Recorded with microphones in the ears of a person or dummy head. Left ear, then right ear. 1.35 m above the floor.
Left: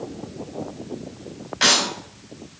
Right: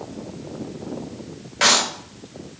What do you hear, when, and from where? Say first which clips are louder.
1.6 s a clap: right 1 dB; 20° right (ahead or behind), 4.5 m